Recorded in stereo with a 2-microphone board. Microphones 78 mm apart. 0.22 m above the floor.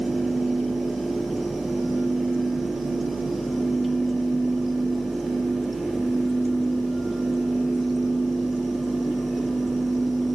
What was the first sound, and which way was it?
Only background noise.